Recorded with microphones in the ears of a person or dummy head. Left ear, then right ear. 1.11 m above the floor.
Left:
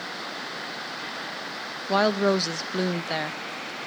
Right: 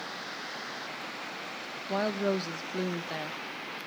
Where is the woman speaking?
25° left (ahead or behind), 0.6 m.